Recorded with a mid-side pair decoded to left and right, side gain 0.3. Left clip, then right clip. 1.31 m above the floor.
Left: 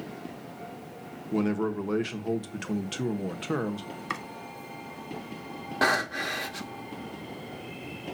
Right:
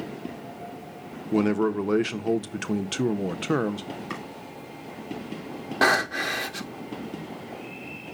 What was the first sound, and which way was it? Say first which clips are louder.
A man speaking: right 5 dB; 50° right.